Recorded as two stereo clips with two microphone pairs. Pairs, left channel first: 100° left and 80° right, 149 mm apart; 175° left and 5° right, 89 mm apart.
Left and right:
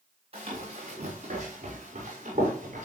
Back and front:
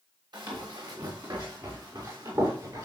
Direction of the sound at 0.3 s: 35° right.